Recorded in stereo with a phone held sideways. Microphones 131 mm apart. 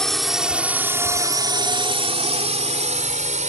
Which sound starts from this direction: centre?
A drone, at 0.0 s.